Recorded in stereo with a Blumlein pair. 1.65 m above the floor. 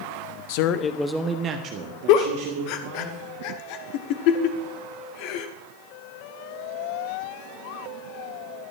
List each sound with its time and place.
0.5 s a man speaking: 50° left, 0.9 m; by 3.1 s 55° right, 3 m
2.1 s a giggle: 45° left, 1.0 m